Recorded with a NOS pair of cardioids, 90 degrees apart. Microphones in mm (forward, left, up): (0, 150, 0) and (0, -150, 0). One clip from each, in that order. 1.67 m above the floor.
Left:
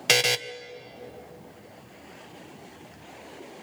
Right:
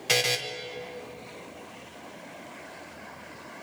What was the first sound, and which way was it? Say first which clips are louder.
A buzzer: left 3 dB; 45° left.